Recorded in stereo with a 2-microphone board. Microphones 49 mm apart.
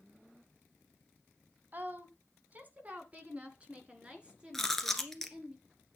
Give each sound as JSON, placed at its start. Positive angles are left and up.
{"t": 1.7, "sound": "a woman speaking", "side_deg": -40, "distance_m": 1.8}
{"t": 4.5, "sound": "chewing", "side_deg": 5, "distance_m": 1.7}